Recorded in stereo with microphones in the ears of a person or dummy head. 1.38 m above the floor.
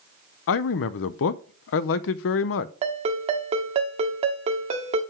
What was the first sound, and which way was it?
A man speaking, 65° left (ahead or behind).